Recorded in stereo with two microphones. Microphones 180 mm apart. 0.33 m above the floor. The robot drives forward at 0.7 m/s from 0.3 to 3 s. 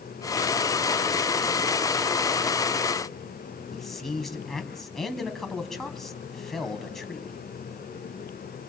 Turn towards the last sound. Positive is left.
turn(degrees=0)  # may be behind; listen again after turning